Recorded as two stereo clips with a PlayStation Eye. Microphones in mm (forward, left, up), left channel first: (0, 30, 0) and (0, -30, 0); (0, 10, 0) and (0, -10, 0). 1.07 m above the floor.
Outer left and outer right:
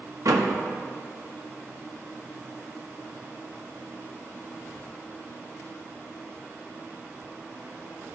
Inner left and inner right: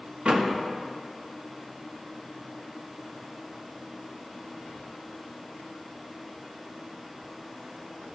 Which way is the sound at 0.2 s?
80° right.